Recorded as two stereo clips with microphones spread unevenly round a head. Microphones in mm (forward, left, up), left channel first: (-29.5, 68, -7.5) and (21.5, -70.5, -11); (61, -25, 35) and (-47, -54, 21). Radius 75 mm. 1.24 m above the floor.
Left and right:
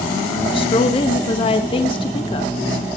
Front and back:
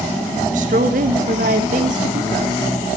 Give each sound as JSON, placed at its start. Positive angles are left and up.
{"t": 0.5, "sound": "a woman speaking", "azimuth_deg": 165, "distance_m": 1.2}